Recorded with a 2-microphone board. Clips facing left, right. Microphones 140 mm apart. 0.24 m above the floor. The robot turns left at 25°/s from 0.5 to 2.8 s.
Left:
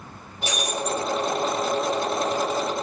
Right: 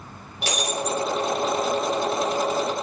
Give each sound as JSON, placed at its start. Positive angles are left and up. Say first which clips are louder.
{"t": 0.4, "sound": "breaking glass", "louder": "right 1 dB", "side_deg": -80, "distance_m": 3.5}